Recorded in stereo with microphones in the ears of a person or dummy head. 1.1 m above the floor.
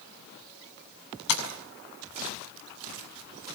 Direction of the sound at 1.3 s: 80° left.